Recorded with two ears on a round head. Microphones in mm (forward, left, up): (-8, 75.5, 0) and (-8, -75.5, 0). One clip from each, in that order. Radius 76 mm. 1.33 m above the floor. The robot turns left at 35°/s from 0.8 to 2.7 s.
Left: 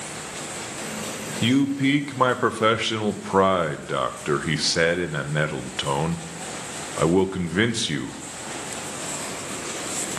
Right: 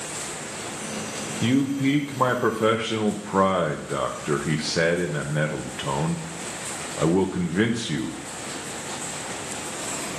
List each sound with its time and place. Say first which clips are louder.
1.4 s a man speaking: left 2 dB; 140° left, 0.8 m; by 8.2 s 95° left, 0.8 m